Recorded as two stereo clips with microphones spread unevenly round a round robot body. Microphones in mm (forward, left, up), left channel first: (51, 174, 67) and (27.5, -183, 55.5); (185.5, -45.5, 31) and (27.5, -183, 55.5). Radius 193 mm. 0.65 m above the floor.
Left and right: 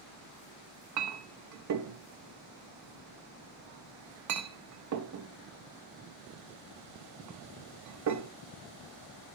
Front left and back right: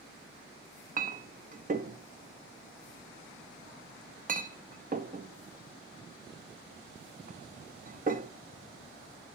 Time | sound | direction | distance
1.0 | a clink | 90° right | 0.8 m